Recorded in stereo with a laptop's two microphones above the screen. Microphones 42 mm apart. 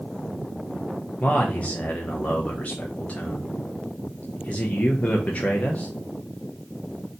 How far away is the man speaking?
About 0.6 m.